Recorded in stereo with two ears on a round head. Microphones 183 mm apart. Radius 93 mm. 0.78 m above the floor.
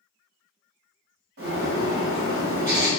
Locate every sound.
1.4 s a bird: 50° right (ahead or behind), 1.2 m